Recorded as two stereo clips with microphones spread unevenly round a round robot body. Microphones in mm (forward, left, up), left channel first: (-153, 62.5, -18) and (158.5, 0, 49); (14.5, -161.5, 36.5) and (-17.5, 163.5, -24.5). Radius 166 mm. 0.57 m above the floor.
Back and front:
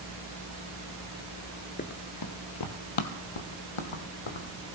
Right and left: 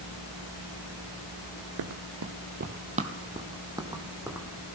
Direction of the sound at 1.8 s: 100° left.